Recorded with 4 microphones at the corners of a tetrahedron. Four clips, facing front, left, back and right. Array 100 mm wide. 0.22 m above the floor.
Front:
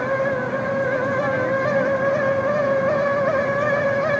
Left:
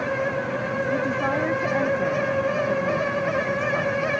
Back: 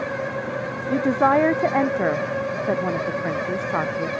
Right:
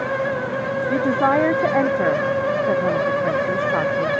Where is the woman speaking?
140° right.